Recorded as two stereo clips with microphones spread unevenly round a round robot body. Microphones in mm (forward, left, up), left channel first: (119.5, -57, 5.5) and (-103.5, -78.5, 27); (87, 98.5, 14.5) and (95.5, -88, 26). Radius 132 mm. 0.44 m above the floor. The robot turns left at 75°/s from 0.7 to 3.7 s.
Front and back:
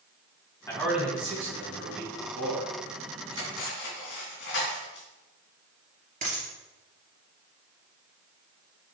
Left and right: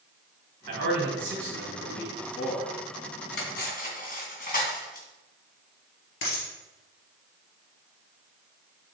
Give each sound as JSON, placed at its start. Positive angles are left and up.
{"t": 0.7, "sound": "a man speaking", "azimuth_deg": -70, "distance_m": 3.0}
{"t": 3.3, "sound": "cutlery clinking", "azimuth_deg": 85, "distance_m": 3.0}
{"t": 6.2, "sound": "a dropped coin", "azimuth_deg": 125, "distance_m": 2.5}